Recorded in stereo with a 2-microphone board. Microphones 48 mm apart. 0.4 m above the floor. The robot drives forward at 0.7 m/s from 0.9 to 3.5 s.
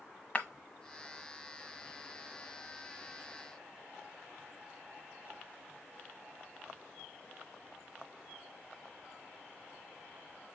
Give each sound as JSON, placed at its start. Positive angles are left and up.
{"t": 0.3, "sound": "breaking glass", "side_deg": 30, "distance_m": 1.1}